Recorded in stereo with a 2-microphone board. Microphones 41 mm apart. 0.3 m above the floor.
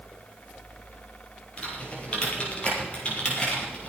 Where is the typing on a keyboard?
30° left (ahead or behind), 5 m.